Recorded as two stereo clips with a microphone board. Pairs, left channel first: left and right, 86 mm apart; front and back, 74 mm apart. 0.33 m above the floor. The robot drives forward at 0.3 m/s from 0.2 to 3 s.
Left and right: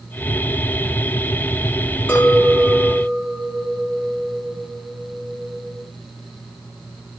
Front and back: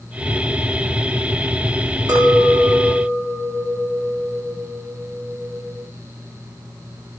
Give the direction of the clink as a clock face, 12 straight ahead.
7 o'clock.